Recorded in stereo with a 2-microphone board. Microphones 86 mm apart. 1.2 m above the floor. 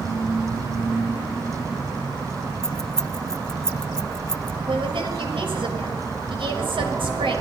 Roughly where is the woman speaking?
Right.